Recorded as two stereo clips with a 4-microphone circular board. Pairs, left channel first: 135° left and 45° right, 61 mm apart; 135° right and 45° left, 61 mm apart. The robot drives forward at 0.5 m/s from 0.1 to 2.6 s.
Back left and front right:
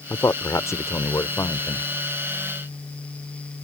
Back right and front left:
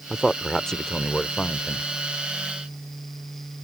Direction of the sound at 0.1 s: 140° left.